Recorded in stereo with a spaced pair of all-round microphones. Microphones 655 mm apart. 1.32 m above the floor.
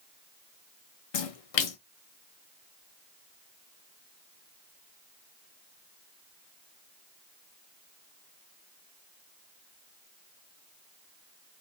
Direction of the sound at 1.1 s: 60° left (ahead or behind).